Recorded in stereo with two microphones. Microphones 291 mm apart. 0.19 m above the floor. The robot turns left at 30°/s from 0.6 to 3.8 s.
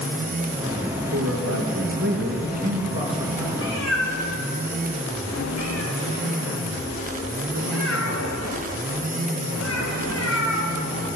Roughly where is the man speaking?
Right.